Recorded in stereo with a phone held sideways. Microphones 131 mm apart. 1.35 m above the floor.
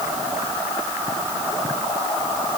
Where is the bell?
No bell in this recording.